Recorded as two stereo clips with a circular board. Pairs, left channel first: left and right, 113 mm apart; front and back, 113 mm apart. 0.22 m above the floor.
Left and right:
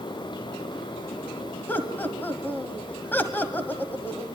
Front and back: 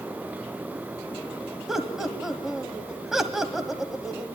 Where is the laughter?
100° left, 1.4 m.